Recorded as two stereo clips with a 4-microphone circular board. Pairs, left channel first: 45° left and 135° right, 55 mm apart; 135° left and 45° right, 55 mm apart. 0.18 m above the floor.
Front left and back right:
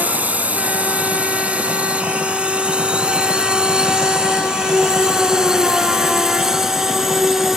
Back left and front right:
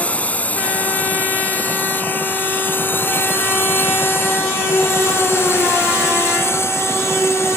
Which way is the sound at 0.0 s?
Straight behind.